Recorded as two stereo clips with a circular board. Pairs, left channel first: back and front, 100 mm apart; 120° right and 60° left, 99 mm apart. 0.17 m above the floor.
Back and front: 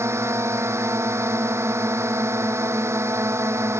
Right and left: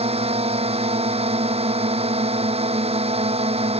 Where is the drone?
65° left.